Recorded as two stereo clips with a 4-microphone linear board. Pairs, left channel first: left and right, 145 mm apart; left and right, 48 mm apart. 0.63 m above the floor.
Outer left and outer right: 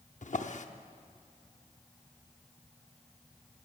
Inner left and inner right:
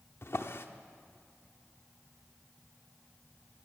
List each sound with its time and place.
0.2 s a drawer: 60° left (ahead or behind), 0.8 m